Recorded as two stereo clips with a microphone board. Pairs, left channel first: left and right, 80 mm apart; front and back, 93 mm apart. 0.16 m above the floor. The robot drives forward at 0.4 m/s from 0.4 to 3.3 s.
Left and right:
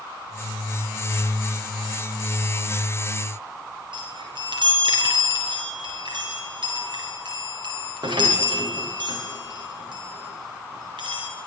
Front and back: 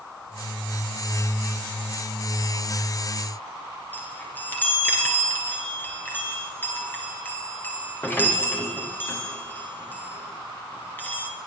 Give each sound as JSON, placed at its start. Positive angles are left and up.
{"t": 3.9, "sound": "a chime", "azimuth_deg": -70, "distance_m": 8.5}